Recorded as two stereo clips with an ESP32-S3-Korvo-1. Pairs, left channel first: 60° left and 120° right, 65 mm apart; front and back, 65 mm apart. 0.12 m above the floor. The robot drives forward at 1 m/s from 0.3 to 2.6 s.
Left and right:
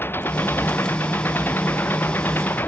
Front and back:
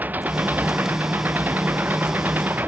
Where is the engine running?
115° left; by 2.7 s 120° left.